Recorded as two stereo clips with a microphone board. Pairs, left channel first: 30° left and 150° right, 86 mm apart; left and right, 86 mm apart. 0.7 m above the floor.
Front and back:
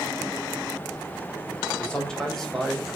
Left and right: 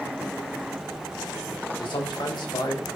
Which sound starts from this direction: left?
A man speaking, at 1.7 s.